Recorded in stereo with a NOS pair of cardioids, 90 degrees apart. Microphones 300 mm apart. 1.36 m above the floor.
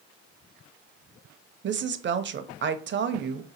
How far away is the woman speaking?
About 0.6 m.